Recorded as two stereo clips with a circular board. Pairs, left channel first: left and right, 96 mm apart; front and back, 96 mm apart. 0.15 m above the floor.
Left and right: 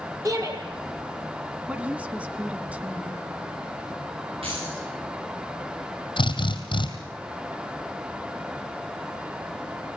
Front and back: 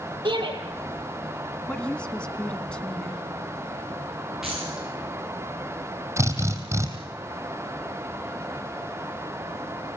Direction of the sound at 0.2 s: 145° right.